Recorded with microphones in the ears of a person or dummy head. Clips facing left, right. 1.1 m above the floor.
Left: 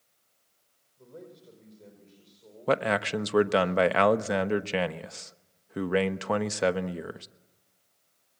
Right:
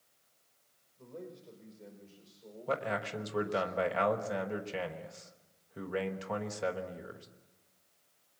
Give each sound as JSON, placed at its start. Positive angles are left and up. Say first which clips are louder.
{"t": 1.0, "sound": "a man speaking", "louder": "right 1 dB", "side_deg": -5, "distance_m": 5.0}
{"t": 2.7, "sound": "a man speaking", "louder": "left 9 dB", "side_deg": 60, "distance_m": 1.1}